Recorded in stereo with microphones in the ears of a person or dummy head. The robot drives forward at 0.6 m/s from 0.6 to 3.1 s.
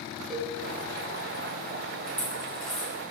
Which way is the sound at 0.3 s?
Centre (ahead or behind).